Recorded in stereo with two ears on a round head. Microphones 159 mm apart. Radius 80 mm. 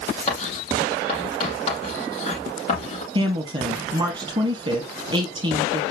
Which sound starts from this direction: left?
Writing, at 0.3 s.